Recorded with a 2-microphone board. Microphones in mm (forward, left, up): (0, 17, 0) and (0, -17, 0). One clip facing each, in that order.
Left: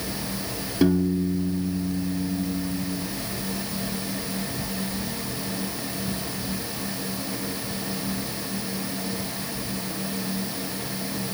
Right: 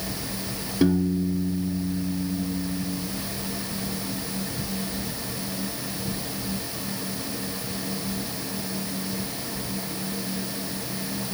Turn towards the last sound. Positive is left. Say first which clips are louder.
# left 1 dB
turn(degrees=5)  # may be behind; listen again after turning